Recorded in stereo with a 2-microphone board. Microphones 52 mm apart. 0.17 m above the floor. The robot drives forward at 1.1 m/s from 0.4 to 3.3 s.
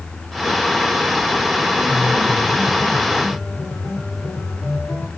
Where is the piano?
80° left, 5.5 m; by 5.1 s 65° left (ahead or behind), 6 m.